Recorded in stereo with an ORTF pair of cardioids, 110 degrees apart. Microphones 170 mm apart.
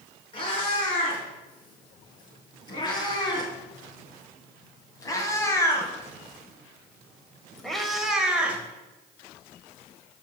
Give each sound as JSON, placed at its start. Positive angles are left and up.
{"t": 0.3, "sound": "a cat meowing", "azimuth_deg": 30, "distance_m": 5.0}